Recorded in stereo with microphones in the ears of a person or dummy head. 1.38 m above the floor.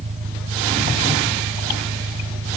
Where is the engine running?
40° right (ahead or behind).